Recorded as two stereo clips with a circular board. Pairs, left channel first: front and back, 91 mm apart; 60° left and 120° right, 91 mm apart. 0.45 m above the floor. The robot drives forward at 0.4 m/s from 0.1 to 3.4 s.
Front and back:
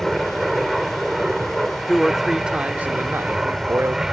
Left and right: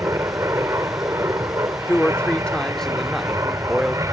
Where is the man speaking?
70° left; by 4.0 s 155° left.